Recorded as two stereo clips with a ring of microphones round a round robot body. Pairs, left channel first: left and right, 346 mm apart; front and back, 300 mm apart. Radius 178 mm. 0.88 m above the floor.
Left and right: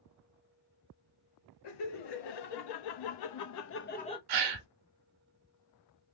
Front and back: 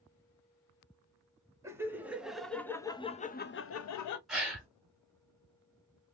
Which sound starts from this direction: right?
A gasp, at 4.3 s.